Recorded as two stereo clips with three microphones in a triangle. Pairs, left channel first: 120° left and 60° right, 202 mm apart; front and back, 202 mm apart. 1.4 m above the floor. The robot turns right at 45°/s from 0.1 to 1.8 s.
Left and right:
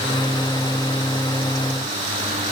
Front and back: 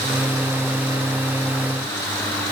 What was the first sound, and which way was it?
Only background noise.